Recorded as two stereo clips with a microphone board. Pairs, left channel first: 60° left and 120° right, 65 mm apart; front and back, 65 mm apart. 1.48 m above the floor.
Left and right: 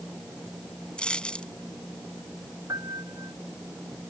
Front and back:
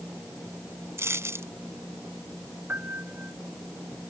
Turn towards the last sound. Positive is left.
turn(degrees=-125)